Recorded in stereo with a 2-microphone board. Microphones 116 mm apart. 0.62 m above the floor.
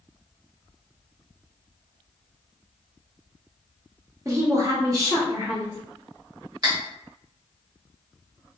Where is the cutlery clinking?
40° right (ahead or behind), 1.2 m.